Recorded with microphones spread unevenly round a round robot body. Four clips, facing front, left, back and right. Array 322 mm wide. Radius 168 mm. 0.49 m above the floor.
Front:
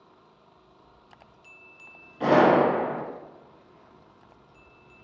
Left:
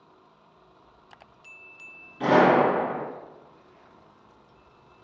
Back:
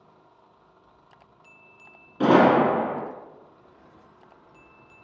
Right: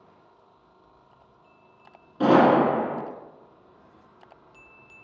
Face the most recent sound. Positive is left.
turn(degrees=-150)